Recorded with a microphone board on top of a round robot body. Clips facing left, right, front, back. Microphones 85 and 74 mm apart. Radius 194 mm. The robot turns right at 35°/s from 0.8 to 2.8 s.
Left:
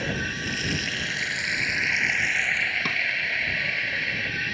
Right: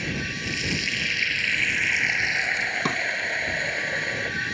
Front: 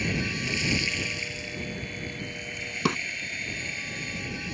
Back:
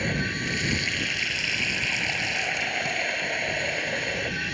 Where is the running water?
135° left; by 4.5 s 155° right.